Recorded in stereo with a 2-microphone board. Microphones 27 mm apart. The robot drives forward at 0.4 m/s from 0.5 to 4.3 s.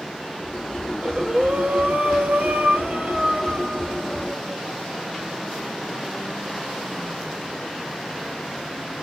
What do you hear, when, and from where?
0.9 s breathing: 40° right (ahead or behind), 1.0 m; by 4.6 s 45° right (ahead or behind), 0.9 m